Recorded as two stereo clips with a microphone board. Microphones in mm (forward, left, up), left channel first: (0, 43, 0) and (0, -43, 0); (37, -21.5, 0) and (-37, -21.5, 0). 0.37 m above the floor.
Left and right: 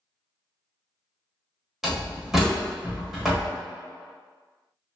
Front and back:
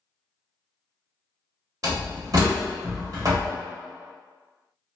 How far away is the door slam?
About 1.0 m.